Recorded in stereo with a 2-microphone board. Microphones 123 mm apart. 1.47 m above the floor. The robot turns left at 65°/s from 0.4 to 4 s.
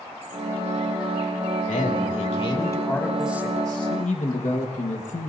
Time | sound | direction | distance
1.7 | a man speaking | 95° left | 2 m
3.9 | a man speaking | 65° left (ahead or behind) | 1.5 m